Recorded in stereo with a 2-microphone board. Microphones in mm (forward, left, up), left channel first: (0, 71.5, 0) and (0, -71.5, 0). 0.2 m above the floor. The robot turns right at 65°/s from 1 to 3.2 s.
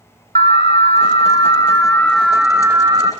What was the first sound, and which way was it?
An alarm, 105° left.